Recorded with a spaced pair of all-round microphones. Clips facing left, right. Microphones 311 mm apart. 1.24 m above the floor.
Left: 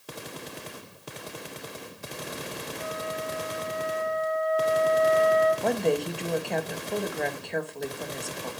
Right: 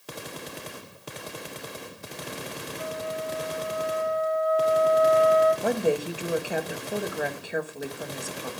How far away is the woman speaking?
About 1.5 m.